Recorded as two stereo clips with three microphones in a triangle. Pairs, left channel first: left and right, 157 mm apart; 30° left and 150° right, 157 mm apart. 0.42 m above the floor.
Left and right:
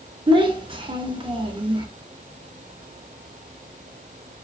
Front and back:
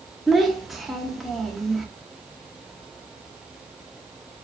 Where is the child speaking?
60° right, 0.5 m.